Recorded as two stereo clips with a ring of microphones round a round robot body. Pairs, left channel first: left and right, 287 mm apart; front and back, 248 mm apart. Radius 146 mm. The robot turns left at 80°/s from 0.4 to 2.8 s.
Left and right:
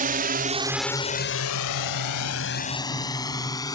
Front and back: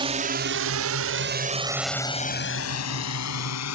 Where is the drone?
125° right; by 3.8 s 10° left.